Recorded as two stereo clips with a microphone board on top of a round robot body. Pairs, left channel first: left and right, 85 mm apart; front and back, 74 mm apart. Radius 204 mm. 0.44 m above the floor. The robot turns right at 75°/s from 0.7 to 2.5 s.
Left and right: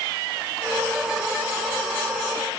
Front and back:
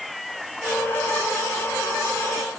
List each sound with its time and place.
Only background noise.